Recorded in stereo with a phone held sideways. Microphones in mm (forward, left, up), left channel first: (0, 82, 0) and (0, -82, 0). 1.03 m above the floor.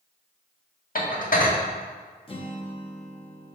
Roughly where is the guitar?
Left.